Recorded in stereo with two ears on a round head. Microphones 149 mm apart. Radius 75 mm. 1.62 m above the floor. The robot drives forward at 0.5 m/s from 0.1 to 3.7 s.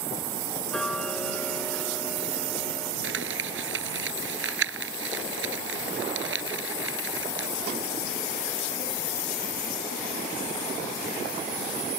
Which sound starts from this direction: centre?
Ticking, at 0.7 s.